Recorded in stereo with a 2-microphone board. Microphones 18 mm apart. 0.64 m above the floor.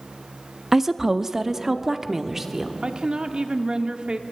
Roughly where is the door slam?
I don't hear a door slam.